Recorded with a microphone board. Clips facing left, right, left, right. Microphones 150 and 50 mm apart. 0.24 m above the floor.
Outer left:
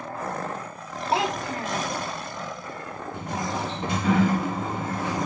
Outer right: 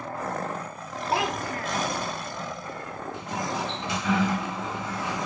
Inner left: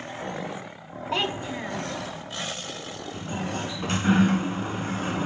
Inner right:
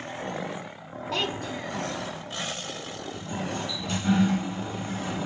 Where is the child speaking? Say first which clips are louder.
Outer left 2 dB, inner left 2 dB; 25° left (ahead or behind), 0.9 m.